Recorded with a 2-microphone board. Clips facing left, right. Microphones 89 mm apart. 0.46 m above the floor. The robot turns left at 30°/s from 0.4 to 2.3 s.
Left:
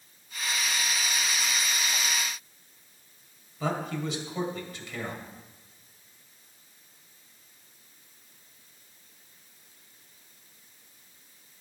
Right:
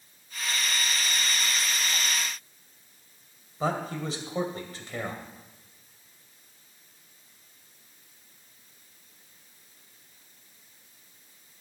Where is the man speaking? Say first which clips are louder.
Right 1 dB; 35° right (ahead or behind), 2 m.